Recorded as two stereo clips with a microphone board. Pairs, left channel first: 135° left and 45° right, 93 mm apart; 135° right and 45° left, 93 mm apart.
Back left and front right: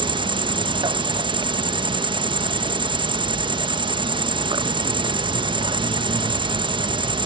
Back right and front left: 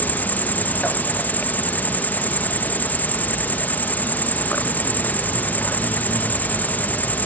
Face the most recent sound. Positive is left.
turn(degrees=-65)